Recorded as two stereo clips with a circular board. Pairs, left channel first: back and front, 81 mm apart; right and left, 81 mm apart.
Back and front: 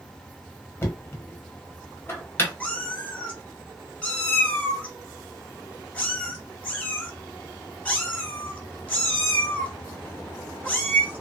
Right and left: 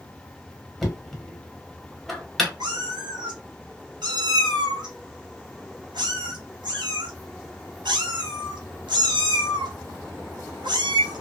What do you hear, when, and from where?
0.8 s knocking: 175° right, 0.8 m
2.6 s a cat meowing: 110° left, 1.1 m